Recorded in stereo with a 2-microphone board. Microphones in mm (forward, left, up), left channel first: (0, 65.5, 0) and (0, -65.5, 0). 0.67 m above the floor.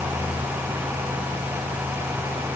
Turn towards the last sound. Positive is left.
No sound to turn to.